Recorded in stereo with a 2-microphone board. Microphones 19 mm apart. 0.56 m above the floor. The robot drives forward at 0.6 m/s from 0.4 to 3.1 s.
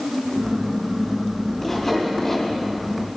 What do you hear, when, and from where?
1.6 s sawing: 20° left (ahead or behind), 3 m; by 2.5 s 25° left (ahead or behind), 2.5 m